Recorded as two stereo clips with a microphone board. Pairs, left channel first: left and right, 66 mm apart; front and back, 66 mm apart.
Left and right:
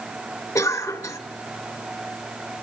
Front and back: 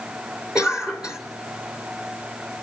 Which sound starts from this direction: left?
A cough, at 0.6 s.